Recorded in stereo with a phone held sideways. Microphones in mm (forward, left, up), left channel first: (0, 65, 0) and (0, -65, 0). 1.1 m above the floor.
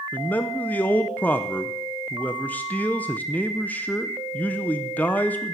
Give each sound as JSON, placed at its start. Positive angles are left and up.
{"t": 0.1, "sound": "a man speaking", "side_deg": 10, "distance_m": 0.6}